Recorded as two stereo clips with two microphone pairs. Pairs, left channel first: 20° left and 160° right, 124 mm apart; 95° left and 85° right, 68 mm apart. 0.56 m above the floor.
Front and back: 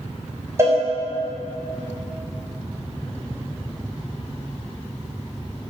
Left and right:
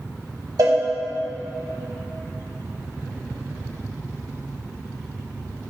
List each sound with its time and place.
0.6 s a cowbell: 95° right, 1.9 m